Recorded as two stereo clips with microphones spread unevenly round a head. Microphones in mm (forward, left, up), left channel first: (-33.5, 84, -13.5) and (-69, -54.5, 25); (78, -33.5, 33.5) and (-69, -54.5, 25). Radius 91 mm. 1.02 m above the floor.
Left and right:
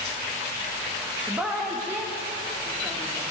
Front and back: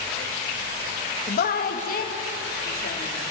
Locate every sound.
1.3 s a woman speaking: 15° right, 1.6 m; by 3.2 s 20° right, 3 m